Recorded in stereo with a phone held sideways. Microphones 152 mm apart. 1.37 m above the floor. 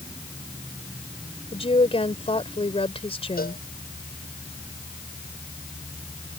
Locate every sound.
1.5 s a woman speaking: 40° left (ahead or behind)
3.4 s a cowbell: 80° left